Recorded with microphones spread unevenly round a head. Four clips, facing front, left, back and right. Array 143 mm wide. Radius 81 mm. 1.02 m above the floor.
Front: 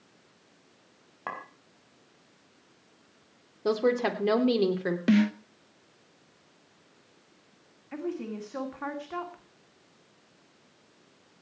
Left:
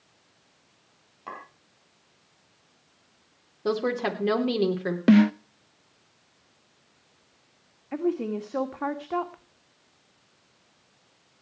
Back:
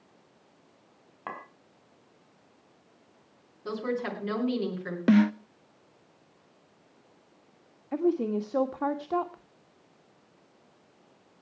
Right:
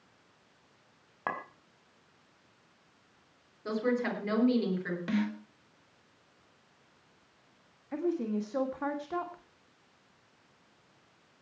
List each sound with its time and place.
1.3 s a clink: 55° right, 3.5 m
3.6 s a woman speaking: 40° left, 3 m
5.1 s a snare drum: 105° left, 0.5 m
7.9 s a woman speaking: 160° left, 1.4 m